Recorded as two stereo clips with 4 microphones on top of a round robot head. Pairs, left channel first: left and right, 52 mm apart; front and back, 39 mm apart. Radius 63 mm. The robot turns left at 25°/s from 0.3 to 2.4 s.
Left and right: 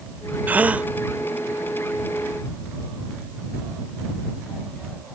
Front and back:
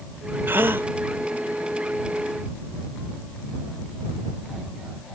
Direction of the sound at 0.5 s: 145° right.